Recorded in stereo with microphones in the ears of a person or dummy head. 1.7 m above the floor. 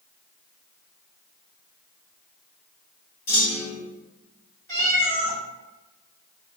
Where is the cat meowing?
40° right (ahead or behind), 1.5 m.